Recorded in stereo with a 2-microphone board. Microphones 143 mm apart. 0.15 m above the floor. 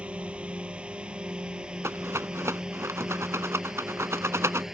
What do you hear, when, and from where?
0.0 s a drone: 10° right (ahead or behind); by 4.8 s 5° right (ahead or behind)
1.8 s a rattle: 20° right (ahead or behind)